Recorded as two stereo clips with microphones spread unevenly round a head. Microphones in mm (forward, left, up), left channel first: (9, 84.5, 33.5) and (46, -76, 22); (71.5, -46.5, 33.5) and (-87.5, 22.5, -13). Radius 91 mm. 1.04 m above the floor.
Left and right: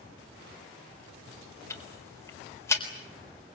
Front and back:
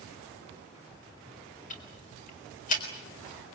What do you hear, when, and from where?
1.7 s ticking: 30° left, 4 m